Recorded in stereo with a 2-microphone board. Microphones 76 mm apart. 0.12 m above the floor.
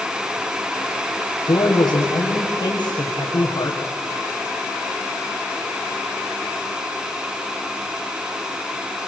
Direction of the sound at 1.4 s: 70° left (ahead or behind).